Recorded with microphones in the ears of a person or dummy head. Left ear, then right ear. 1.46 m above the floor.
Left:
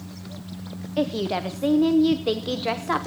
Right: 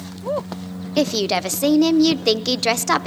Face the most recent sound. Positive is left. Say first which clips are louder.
# right 6 dB
turn(degrees=-85)